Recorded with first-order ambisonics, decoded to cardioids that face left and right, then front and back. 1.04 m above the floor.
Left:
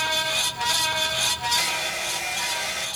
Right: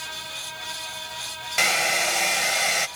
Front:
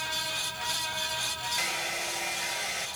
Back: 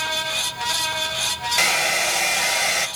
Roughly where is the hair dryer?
Behind right.